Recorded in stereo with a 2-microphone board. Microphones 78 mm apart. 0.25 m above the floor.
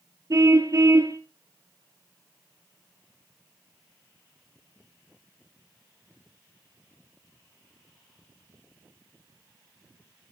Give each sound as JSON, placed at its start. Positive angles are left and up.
{"t": 0.3, "sound": "a car horn", "side_deg": -45, "distance_m": 3.0}